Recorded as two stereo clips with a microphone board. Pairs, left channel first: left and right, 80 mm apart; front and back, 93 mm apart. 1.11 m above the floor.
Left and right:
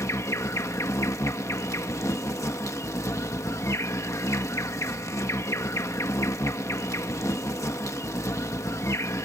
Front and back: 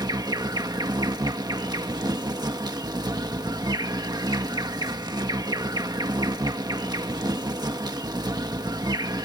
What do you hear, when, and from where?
0.0 s an insect: 140° left